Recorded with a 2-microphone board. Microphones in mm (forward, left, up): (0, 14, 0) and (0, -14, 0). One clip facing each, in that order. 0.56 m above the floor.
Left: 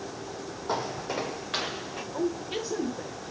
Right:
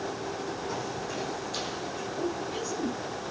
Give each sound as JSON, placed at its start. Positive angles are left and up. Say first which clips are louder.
{"t": 0.7, "sound": "footsteps", "louder": "left 3 dB", "side_deg": 50, "distance_m": 0.8}
{"t": 2.1, "sound": "a woman speaking", "louder": "left 4 dB", "side_deg": 55, "distance_m": 2.0}